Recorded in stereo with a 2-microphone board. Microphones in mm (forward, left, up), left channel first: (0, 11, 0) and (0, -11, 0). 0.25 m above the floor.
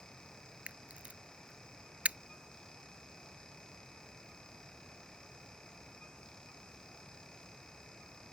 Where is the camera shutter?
75° right (ahead or behind).